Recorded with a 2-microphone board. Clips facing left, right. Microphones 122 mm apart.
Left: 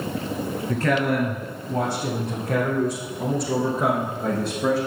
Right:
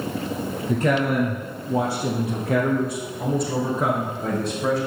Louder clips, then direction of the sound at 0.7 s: Right 1 dB; 20° right (ahead or behind).